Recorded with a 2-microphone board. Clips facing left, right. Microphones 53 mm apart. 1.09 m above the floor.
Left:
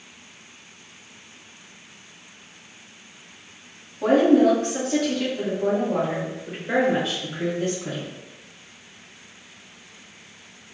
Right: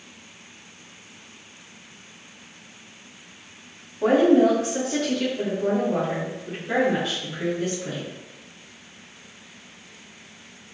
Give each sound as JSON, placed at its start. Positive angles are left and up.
{"t": 4.0, "sound": "a woman speaking", "side_deg": -15, "distance_m": 1.5}